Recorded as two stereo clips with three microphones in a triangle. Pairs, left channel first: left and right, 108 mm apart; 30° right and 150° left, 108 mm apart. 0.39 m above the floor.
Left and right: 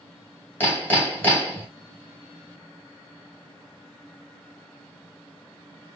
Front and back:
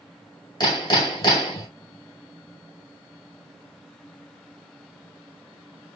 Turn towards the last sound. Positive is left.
turn(degrees=20)